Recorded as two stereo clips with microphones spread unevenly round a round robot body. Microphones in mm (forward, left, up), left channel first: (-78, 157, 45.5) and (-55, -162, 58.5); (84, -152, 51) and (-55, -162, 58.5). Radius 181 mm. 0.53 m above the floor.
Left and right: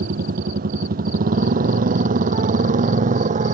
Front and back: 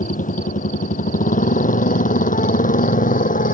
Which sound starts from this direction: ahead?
A motorcycle, at 0.0 s.